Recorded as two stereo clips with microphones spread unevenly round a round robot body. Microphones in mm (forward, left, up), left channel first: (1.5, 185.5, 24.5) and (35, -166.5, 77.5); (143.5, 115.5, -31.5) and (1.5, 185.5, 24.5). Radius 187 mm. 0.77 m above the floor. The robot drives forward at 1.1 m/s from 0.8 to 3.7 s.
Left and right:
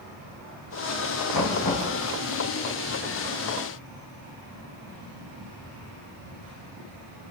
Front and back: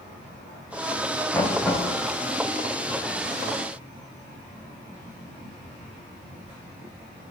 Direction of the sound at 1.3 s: 55° left.